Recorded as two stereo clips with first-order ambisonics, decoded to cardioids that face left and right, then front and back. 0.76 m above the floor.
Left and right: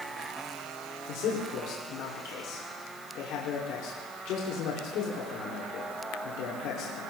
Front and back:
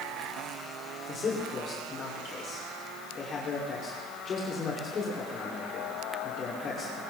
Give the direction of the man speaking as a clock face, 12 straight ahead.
10 o'clock.